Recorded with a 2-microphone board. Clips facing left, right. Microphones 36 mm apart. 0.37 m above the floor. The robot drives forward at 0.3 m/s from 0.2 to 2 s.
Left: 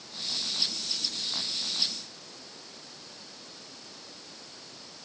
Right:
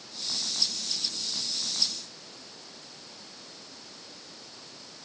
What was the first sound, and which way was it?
Only background noise.